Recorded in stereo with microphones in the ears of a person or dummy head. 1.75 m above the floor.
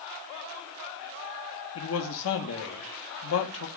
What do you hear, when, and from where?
1.8 s a man speaking: 70° left (ahead or behind), 0.9 m